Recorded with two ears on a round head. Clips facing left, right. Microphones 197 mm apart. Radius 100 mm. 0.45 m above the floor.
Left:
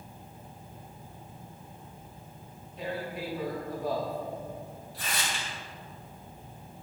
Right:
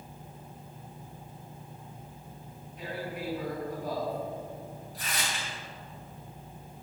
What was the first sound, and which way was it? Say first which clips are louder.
Tearing paper: left 2 dB; 25° left (ahead or behind).